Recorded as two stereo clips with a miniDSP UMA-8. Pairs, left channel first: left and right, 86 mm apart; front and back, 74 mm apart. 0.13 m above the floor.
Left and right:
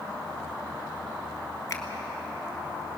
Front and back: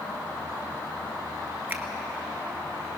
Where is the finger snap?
130° left, 1.8 m.